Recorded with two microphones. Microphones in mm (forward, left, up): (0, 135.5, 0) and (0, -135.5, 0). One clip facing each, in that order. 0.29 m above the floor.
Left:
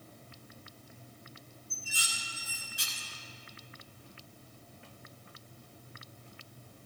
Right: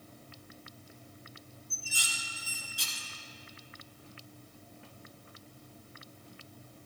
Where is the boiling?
I don't hear boiling.